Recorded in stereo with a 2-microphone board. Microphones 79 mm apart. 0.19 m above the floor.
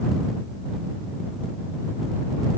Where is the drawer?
I don't hear a drawer.